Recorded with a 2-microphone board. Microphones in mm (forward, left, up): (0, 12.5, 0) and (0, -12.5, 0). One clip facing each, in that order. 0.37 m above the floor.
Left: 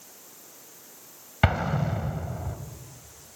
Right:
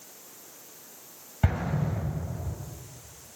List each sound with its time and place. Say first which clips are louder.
1.4 s an explosion: left 5 dB; 55° left (ahead or behind), 2 m